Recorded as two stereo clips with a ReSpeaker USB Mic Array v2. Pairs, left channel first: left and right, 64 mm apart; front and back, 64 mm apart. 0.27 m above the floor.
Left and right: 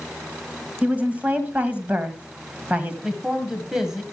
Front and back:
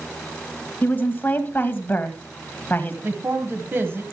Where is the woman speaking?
40° right, 1.9 m.